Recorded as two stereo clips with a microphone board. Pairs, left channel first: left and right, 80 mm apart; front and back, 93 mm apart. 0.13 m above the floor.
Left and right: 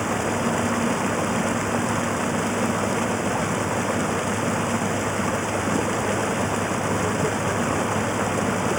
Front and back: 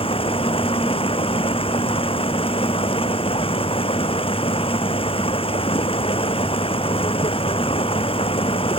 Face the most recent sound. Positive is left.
turn(degrees=0)